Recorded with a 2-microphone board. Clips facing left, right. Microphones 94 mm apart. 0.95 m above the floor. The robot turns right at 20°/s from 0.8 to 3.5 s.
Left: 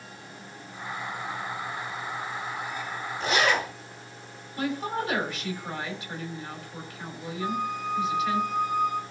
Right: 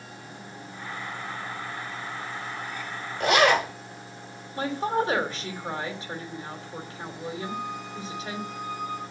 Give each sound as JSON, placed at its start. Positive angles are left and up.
{"t": 3.2, "sound": "a zipper", "side_deg": -75, "distance_m": 2.5}
{"t": 4.6, "sound": "a woman speaking", "side_deg": -35, "distance_m": 2.5}
{"t": 7.4, "sound": "a flute", "side_deg": 55, "distance_m": 2.0}